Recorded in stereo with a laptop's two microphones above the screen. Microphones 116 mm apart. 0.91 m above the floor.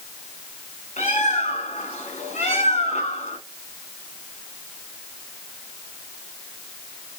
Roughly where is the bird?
Left.